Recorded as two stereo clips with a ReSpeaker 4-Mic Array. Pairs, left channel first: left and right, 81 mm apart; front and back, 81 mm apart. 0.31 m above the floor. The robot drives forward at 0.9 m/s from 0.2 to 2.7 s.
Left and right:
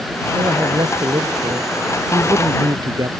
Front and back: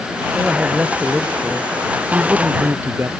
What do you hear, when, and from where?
0.3 s a man speaking: 100° right; by 3.1 s 120° right